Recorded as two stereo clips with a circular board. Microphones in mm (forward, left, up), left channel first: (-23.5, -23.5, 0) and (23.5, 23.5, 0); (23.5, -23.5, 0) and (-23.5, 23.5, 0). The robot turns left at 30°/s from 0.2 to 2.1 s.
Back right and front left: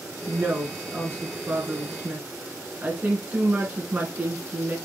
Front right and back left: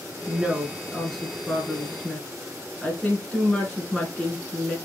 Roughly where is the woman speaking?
Ahead left.